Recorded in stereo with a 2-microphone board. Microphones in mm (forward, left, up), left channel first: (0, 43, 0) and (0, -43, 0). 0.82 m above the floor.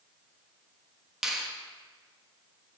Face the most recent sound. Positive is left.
turn(degrees=-5)  # may be behind; listen again after turning